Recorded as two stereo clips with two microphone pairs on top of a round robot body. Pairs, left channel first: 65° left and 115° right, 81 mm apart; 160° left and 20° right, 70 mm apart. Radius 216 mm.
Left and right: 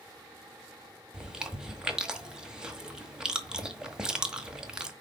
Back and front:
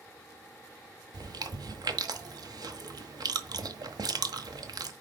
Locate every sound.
1.1 s chewing: 40° right, 1.4 m